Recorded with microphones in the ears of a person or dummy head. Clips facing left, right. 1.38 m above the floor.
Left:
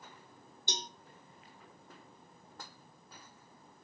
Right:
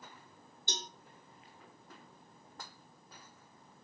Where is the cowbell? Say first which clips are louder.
Left 1 dB; 20° left (ahead or behind), 0.5 m.